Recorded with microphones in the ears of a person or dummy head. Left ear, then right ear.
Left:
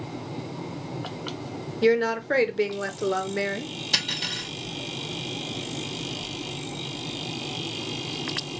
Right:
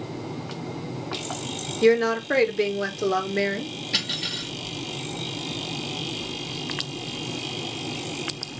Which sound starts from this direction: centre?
A woman speaking, at 1.8 s.